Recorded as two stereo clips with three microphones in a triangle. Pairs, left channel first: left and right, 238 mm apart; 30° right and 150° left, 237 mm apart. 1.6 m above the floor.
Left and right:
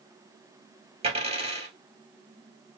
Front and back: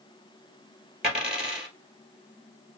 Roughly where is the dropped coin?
Behind right.